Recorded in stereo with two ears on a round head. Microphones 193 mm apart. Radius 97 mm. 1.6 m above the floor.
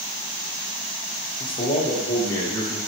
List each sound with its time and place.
1.4 s a man speaking: 30° left (ahead or behind), 0.7 m; by 2.8 s 15° left (ahead or behind), 1.7 m